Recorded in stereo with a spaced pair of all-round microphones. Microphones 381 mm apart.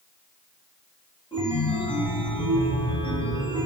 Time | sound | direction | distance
1.3 | a chime | 10° left (ahead or behind) | 1.6 m